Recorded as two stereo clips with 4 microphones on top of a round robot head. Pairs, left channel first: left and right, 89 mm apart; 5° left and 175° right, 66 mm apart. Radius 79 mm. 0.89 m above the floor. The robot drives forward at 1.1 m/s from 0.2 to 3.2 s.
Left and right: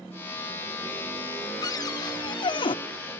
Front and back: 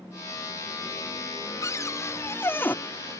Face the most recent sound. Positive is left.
turn(degrees=80)